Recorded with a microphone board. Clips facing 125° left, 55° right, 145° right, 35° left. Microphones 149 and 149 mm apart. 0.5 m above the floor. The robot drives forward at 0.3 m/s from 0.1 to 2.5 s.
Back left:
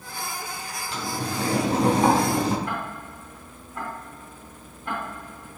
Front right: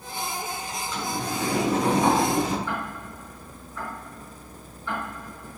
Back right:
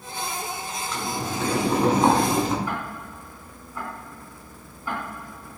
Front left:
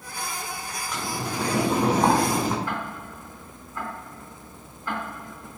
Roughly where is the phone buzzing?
No phone buzzing in this recording.